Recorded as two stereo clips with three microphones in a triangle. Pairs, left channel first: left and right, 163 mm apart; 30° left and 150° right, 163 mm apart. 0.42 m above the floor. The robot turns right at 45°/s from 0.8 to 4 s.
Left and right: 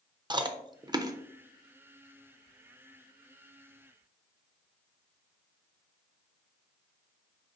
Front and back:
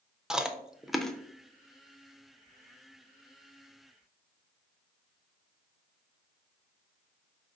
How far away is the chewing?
About 0.5 m.